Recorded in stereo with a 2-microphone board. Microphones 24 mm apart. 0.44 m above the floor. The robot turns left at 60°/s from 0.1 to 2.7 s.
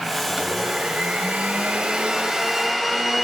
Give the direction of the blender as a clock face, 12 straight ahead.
1 o'clock.